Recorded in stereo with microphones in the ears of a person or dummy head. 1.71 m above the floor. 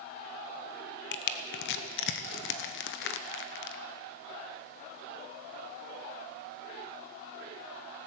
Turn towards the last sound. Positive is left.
turn(degrees=65)  # may be behind; listen again after turning